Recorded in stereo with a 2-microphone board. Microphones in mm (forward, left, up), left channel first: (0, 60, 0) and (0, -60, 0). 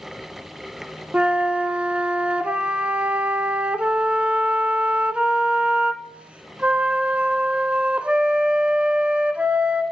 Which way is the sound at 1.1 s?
10° right (ahead or behind).